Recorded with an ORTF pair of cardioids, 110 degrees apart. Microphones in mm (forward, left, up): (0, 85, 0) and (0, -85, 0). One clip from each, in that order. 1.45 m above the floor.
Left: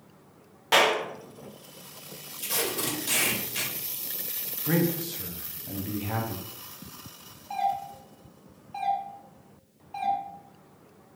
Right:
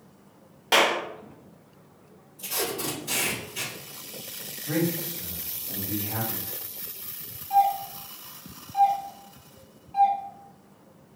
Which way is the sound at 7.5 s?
20° left.